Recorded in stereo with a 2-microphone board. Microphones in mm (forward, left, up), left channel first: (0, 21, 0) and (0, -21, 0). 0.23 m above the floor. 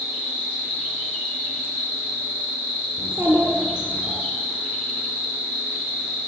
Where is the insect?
75° left (ahead or behind), 4 m.